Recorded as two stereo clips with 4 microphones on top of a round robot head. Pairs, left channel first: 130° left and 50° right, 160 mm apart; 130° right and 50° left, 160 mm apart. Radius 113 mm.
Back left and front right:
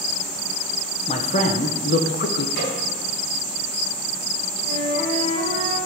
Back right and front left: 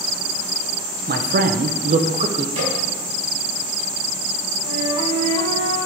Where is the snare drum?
100° left, 5 m.